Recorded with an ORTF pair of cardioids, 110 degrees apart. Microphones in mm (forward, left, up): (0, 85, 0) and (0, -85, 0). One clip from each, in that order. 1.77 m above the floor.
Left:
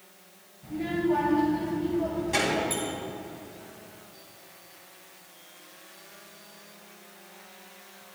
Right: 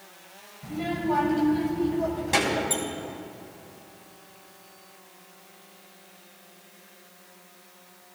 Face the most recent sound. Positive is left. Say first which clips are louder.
# right 2 dB
turn(degrees=-20)